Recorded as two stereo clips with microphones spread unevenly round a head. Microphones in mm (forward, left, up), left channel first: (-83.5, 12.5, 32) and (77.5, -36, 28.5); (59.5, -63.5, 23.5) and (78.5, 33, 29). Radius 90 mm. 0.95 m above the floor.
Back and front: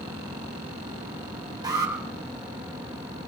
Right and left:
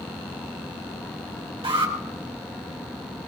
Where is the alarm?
50° left, 3.5 m.